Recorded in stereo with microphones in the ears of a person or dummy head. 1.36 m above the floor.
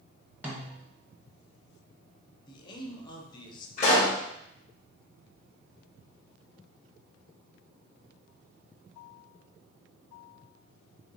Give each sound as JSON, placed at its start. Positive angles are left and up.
{"t": 0.4, "sound": "a snare drum", "side_deg": -5, "distance_m": 1.2}
{"t": 2.5, "sound": "a man speaking", "side_deg": 30, "distance_m": 0.9}
{"t": 3.8, "sound": "a pop", "side_deg": 40, "distance_m": 1.8}